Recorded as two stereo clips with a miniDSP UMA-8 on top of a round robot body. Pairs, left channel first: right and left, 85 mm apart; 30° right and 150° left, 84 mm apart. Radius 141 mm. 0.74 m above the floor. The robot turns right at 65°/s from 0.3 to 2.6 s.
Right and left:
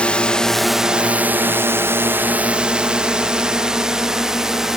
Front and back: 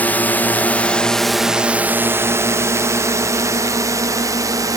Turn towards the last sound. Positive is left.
turn(degrees=175)